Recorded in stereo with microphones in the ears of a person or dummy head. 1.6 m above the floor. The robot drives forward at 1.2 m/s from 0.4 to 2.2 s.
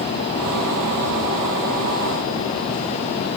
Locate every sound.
Only background noise.